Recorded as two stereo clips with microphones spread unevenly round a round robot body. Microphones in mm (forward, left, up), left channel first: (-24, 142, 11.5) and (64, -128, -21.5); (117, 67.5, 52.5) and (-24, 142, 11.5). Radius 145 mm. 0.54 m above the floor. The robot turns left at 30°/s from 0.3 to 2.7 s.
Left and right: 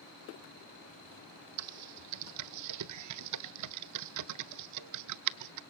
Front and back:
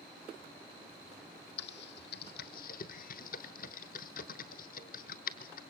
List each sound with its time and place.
1.6 s typing on a keyboard: 45° right, 0.7 m; by 5.6 s 80° right, 0.7 m